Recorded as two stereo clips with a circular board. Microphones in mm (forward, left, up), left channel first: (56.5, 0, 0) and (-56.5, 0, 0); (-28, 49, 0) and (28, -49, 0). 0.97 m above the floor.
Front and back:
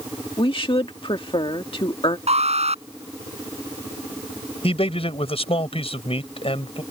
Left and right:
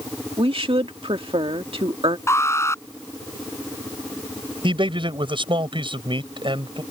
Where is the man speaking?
25° right.